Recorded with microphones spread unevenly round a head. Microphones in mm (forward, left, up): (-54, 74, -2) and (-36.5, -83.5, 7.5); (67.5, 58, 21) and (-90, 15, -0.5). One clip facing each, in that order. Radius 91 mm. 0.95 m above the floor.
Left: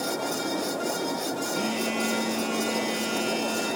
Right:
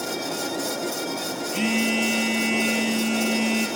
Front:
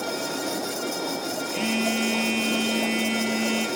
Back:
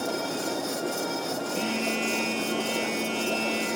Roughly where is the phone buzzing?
Ahead right.